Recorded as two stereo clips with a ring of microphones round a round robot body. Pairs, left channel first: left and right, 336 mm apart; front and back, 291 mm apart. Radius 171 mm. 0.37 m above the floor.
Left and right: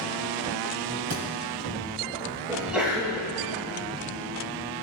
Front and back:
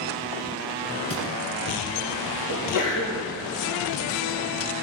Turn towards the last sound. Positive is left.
turn(degrees=-5)